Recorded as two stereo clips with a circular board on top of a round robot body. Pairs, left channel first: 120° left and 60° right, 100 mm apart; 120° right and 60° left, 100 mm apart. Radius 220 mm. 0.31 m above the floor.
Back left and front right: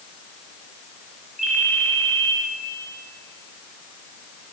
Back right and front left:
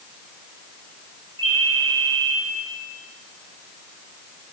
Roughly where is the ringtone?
Ahead left.